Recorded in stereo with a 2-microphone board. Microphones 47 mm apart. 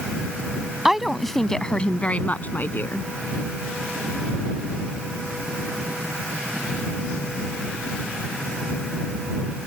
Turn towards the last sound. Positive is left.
turn(degrees=50)  # may be behind; listen again after turning